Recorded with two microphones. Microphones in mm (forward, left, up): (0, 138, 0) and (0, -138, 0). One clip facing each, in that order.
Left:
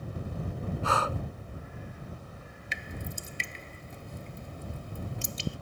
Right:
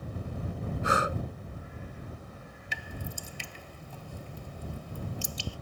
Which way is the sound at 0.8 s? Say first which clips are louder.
Right 2 dB; 20° right (ahead or behind).